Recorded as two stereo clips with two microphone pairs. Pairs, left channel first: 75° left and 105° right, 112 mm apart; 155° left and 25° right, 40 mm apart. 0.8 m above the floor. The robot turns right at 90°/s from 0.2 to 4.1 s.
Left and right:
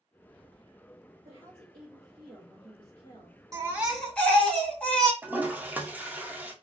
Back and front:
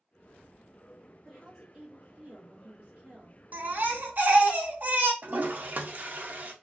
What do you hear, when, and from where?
1.2 s a woman speaking: 145° right, 0.9 m; by 3.4 s 50° left, 0.9 m
3.5 s a baby crying: 60° right, 0.7 m; by 5.1 s 5° right, 0.7 m
5.2 s a toilet flushing: 45° right, 0.6 m